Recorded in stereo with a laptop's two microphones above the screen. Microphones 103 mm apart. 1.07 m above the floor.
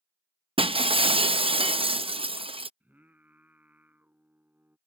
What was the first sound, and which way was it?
Breaking glass, 60° right (ahead or behind).